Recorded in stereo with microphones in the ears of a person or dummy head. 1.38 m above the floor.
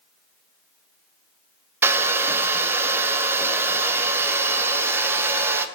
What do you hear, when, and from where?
1.8 s a hair dryer: 10° right (ahead or behind), 0.6 m